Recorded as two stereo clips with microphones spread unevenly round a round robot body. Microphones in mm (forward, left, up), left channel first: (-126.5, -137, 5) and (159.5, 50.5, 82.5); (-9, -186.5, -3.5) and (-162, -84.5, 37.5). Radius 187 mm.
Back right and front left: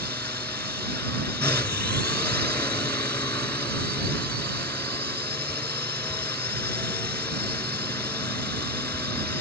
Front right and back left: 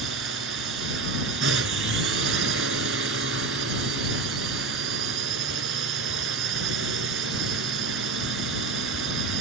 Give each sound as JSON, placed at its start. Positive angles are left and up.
{"t": 0.0, "sound": "a drone", "azimuth_deg": 130}